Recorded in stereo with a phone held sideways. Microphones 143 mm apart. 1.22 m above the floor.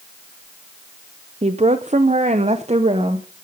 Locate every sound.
1.4 s a woman speaking: 45° right (ahead or behind), 0.7 m; by 3.3 s 40° right (ahead or behind), 1.0 m